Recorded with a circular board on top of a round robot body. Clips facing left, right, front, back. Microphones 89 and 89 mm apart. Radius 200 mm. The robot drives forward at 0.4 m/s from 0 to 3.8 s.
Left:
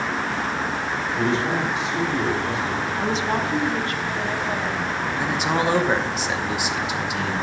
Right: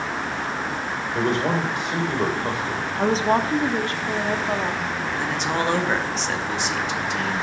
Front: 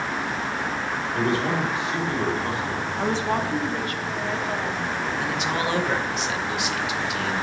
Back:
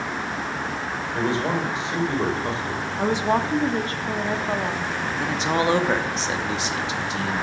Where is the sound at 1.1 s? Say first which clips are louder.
Right 1 dB, even; 110° right, 3 m; by 2.9 s 125° right, 3 m.